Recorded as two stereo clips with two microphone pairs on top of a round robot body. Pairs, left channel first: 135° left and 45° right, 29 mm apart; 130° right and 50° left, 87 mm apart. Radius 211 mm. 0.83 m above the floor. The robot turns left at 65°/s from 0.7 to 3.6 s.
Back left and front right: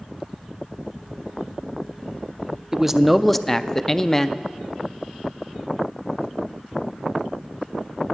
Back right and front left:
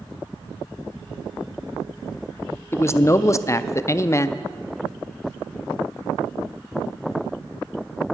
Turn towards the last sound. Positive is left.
turn(degrees=-145)